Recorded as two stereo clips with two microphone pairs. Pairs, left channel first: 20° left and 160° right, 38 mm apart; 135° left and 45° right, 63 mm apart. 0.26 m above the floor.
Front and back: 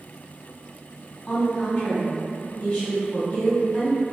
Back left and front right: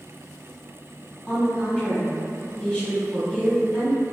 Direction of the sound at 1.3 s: 40° left.